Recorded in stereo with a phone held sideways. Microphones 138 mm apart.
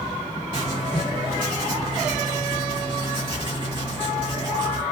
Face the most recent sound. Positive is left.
turn(degrees=-35)  # may be behind; listen again after turning